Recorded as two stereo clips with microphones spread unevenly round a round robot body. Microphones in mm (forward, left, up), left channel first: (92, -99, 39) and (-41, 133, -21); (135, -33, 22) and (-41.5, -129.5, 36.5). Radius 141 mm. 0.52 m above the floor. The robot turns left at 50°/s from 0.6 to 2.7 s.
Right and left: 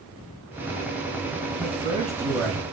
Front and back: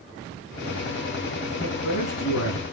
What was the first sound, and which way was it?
A man speaking, 75° left.